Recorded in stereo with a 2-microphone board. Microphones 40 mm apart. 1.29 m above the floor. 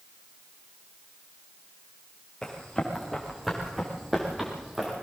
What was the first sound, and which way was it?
Running footsteps, 15° left (ahead or behind).